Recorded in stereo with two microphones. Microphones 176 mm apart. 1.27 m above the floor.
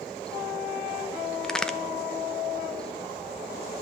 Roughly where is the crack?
Centre.